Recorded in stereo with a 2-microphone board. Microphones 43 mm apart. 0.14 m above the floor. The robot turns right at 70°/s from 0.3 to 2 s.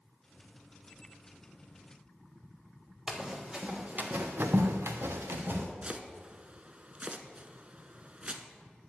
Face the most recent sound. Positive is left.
turn(degrees=-30)  # may be behind; listen again after turning